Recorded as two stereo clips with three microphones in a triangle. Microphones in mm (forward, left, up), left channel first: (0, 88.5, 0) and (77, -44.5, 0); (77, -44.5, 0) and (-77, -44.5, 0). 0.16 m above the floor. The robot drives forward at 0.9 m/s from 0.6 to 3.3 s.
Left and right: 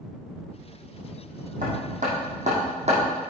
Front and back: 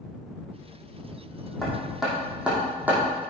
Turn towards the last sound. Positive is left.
turn(degrees=-105)